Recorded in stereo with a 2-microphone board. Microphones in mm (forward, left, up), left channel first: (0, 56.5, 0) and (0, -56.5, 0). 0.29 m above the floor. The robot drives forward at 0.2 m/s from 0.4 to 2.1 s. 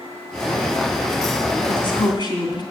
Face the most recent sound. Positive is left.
turn(degrees=40)  # may be behind; listen again after turning